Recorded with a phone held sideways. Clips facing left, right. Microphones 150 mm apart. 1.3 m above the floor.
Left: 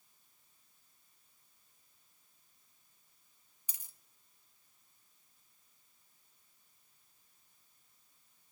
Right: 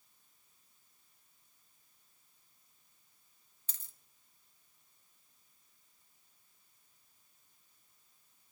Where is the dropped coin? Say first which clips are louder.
Left 1 dB; 10° left (ahead or behind), 0.8 m.